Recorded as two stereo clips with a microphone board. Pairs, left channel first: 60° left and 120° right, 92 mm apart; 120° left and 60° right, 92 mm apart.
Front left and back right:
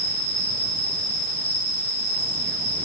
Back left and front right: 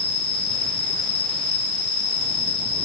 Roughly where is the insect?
Behind left.